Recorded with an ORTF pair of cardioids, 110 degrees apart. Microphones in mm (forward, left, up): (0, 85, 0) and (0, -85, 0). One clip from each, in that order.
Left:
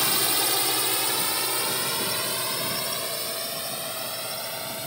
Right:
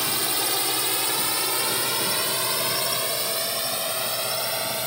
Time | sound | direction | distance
0.0 | a drone | 10° left | ?